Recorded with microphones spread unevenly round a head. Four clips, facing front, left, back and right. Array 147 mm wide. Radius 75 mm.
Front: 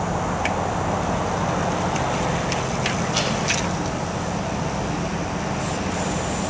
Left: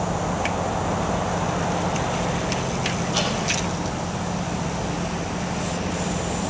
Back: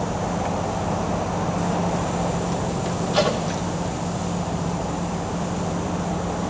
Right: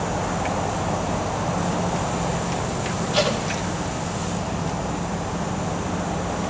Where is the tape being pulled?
175° right, 1.8 m.